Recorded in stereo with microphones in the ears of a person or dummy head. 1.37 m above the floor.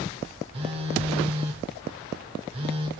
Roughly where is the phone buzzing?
Right.